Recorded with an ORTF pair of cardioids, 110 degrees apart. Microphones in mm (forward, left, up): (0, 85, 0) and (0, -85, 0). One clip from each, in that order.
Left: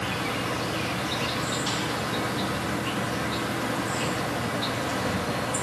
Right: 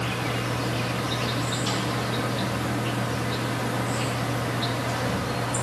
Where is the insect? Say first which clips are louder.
Even; 5° right, 2.5 m.